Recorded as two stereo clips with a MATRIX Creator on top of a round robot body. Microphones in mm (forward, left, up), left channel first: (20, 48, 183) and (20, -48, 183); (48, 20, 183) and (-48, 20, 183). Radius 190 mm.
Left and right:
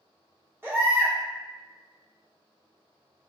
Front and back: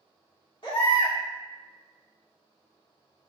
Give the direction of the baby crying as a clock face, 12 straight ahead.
1 o'clock.